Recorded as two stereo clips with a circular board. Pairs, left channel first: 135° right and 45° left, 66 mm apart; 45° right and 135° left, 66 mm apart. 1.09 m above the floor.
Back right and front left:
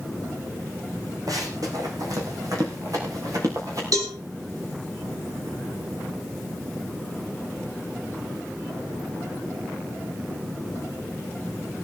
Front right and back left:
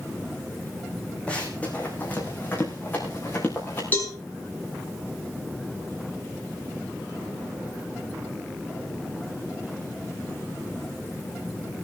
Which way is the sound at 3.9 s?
20° left.